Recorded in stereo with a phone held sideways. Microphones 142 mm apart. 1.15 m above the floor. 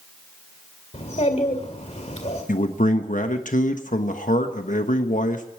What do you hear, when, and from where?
0.9 s a child speaking: 55° left (ahead or behind), 2 m
2.5 s a man speaking: 65° left (ahead or behind), 1.2 m